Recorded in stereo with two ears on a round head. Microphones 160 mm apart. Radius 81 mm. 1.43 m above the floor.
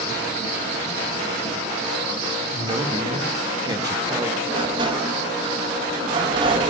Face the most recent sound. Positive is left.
turn(degrees=-25)  # may be behind; listen again after turning